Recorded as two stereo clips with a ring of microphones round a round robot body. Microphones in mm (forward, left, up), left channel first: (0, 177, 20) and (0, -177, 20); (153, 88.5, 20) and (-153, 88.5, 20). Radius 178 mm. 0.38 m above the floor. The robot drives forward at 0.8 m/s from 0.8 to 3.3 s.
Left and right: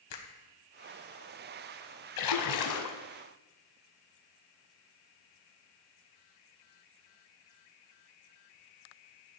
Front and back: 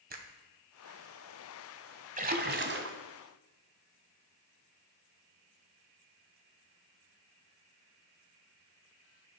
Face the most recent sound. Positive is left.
turn(degrees=140)